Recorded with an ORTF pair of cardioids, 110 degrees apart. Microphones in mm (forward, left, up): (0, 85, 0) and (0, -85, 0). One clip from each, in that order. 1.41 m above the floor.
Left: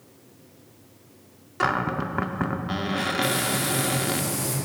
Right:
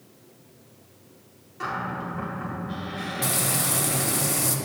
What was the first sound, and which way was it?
A cupboard door, 60° left.